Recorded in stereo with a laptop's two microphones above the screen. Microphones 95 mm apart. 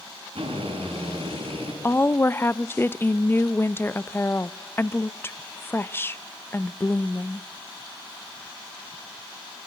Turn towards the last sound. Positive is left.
turn(degrees=25)  # may be behind; listen again after turning